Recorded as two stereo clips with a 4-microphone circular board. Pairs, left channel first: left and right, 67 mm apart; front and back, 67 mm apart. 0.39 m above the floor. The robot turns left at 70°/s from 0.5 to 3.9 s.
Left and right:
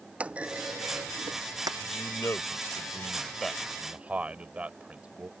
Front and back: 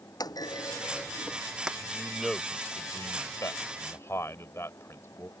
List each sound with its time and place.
0.2 s a clunk: 20° right; by 1.7 s 100° right
1.8 s a man speaking: 120° left; by 5.3 s 25° right